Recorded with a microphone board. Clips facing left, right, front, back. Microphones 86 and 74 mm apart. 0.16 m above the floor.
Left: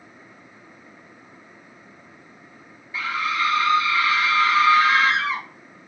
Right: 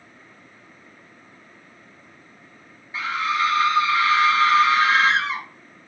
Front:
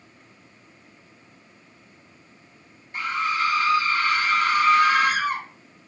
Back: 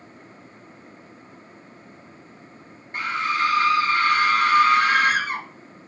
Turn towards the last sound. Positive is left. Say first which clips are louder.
# right 1 dB, back 1 dB
turn(degrees=-150)